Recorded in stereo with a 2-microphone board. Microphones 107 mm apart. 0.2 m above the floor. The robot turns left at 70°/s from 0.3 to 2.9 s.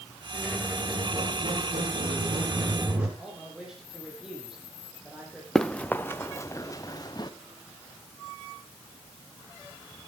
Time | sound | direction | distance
0.3 | a squeak | 10° left | 10 m
3.2 | a man speaking | 5° right (ahead or behind) | 9 m
5.5 | running footsteps | 5° left (ahead or behind) | 1.2 m